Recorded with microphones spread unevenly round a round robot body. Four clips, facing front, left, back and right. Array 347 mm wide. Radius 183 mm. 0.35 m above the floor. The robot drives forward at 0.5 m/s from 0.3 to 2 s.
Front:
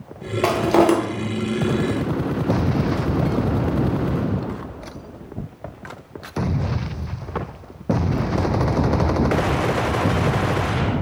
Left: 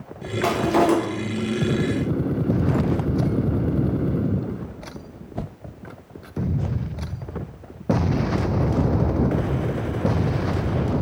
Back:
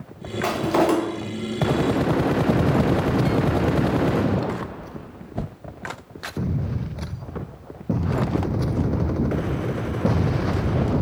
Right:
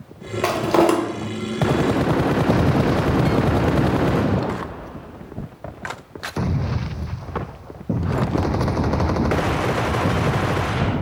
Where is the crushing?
30° right, 1.1 m; by 0.9 s 40° right, 0.9 m.